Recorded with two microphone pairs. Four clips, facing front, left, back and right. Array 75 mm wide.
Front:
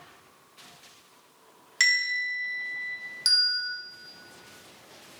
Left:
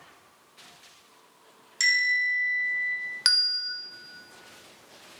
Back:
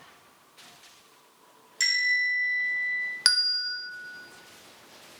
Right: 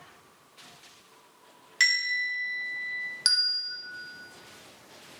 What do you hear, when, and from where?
1.8 s a bell: 35° right, 3.5 m
3.2 s a bell: 155° left, 0.8 m